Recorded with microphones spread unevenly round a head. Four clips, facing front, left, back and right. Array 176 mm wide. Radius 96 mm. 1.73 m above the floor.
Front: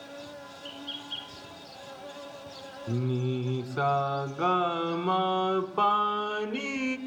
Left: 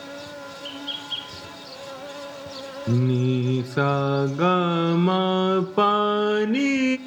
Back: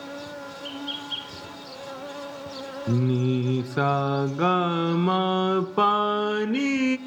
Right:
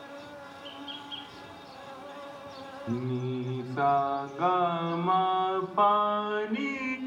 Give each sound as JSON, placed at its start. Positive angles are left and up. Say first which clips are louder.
{"t": 0.0, "sound": "an insect", "louder": "left 7 dB, back 7 dB", "azimuth_deg": 140, "distance_m": 0.9}
{"t": 2.9, "sound": "singing", "louder": "left 9 dB, back 6 dB", "azimuth_deg": 105, "distance_m": 0.5}